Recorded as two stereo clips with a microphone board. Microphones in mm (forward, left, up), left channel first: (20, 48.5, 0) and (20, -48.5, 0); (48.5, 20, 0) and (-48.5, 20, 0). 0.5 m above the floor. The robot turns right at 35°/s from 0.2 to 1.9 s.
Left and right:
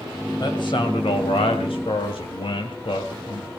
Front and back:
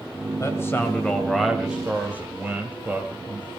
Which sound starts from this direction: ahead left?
A man speaking, at 0.4 s.